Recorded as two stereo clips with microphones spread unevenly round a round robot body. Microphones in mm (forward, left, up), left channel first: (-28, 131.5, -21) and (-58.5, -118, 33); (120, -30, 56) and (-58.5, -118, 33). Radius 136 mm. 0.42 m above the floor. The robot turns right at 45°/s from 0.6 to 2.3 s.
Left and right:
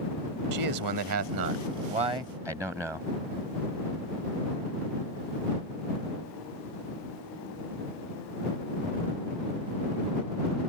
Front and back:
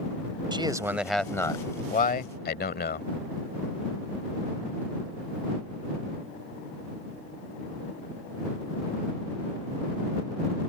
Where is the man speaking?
90° right; by 3.1 s 10° right.